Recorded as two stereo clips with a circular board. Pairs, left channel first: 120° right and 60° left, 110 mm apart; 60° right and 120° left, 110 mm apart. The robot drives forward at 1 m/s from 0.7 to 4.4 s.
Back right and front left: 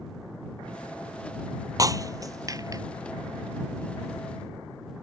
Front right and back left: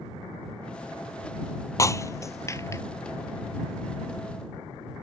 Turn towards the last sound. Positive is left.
turn(degrees=10)